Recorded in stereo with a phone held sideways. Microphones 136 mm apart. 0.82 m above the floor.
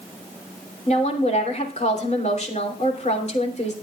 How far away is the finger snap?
No finger snap in this recording.